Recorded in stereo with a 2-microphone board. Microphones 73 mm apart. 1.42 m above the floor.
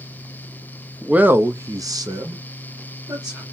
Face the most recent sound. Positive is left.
turn(degrees=-55)  # may be behind; listen again after turning